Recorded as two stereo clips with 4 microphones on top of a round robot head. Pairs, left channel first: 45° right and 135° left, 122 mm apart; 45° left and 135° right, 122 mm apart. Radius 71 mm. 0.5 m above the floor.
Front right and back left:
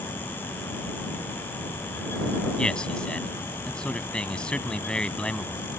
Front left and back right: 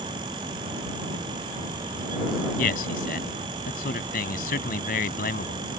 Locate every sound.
2.6 s a man speaking: 40° left